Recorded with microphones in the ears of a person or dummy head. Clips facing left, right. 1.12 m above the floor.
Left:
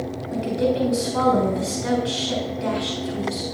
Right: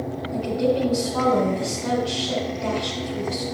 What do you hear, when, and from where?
0.3 s a woman speaking: 35° left (ahead or behind), 4.5 m